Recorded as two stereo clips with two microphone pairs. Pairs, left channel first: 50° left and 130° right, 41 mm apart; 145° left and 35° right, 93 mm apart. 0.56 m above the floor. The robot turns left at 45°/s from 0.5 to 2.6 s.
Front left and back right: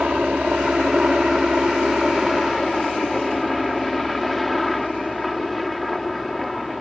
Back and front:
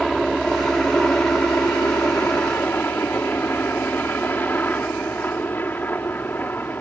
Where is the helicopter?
135° right; by 6.8 s 135° left.